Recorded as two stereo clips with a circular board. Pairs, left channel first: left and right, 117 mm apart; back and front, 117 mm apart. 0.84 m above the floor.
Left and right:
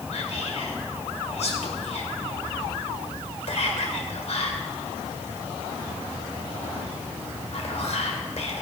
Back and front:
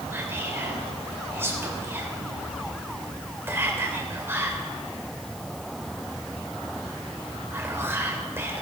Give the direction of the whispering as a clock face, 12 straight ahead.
10 o'clock.